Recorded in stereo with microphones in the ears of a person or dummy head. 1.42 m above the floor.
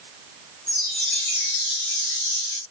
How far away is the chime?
About 2.5 m.